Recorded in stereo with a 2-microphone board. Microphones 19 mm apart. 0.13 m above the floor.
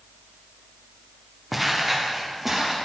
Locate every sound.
1.5 s footsteps: 5° right (ahead or behind), 1.5 m; by 2.7 s 20° right (ahead or behind), 3 m